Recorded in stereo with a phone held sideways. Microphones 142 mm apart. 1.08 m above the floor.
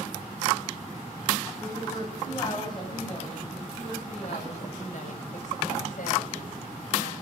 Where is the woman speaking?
25° left (ahead or behind), 8 m; by 7.1 s 80° left, 7 m.